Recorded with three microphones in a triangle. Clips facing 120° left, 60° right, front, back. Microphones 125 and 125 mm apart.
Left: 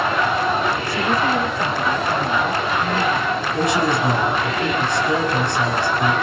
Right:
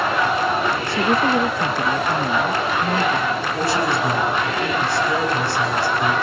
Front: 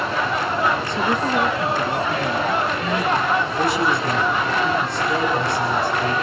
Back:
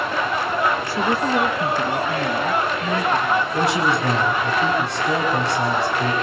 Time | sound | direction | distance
0.9 | a woman speaking | 100° right | 1.0 m
3.5 | a man speaking | 170° right | 5.5 m